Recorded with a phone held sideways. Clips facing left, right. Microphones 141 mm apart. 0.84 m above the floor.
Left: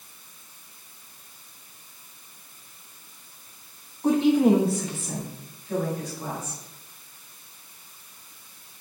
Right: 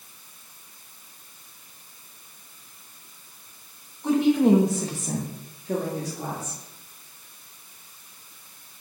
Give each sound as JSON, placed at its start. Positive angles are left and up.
{"t": 4.0, "sound": "a woman speaking", "side_deg": 40, "distance_m": 0.9}